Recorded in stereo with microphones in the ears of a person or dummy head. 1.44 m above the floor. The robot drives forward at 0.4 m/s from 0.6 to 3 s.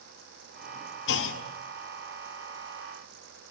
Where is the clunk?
65° left (ahead or behind), 1.7 m.